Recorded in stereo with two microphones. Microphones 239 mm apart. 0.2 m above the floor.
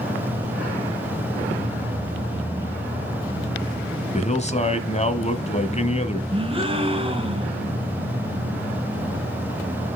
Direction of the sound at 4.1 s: 30° left (ahead or behind).